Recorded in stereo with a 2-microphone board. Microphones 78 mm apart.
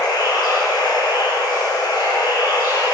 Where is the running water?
60° left (ahead or behind), 3.5 m.